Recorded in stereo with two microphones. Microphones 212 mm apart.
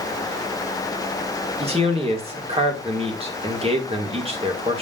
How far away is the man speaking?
About 2 m.